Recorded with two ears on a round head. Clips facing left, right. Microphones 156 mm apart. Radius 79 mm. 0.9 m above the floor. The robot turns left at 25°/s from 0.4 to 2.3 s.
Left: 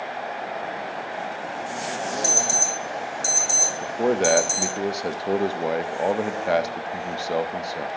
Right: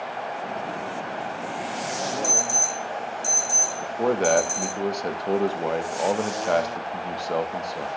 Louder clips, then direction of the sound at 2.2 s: Left 1 dB; 70° left (ahead or behind).